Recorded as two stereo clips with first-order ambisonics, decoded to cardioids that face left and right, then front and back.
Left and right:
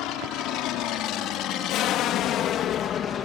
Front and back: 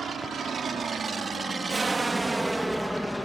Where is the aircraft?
115° left; by 3.3 s 75° left.